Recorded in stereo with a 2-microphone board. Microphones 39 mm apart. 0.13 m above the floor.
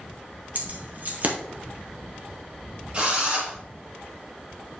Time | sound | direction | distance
0.6 | keys jangling | 45° right (ahead or behind) | 2 m
2.9 | a drill | 35° right (ahead or behind) | 3.5 m